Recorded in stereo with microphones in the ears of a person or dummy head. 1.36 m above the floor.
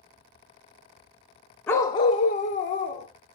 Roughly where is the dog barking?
Centre.